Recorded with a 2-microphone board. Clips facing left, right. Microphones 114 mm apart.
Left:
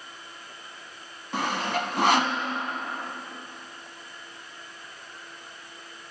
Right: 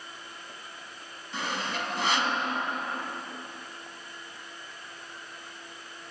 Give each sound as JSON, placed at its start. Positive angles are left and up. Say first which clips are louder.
{"t": 1.3, "sound": "sawing", "louder": "left 5 dB", "side_deg": 55, "distance_m": 0.9}